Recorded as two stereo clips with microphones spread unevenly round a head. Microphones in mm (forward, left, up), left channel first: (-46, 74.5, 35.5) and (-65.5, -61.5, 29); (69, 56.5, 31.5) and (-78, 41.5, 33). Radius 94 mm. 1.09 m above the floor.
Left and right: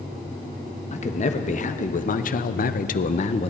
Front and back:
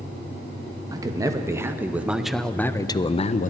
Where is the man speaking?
120° left, 1.4 m; by 3.5 s 30° left, 0.6 m.